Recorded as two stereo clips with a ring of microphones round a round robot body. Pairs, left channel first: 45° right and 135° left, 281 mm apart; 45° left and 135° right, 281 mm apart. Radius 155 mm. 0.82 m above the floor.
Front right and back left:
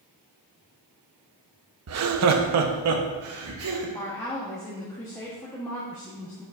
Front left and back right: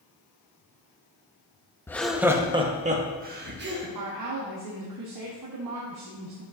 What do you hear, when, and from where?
1.9 s laughter: 125° left, 0.9 m; by 3.9 s 175° left, 1.7 m
4.0 s a woman speaking: 125° right, 1.1 m